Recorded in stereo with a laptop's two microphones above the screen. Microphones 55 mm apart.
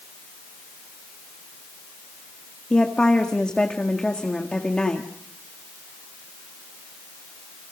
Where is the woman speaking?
20° left (ahead or behind), 1.7 m.